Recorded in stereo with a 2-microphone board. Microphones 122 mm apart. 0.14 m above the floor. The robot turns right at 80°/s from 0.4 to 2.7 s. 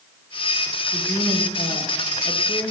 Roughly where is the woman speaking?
Ahead.